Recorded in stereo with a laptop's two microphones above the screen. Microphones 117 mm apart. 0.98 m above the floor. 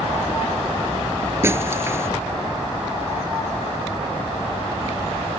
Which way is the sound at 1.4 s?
20° right (ahead or behind).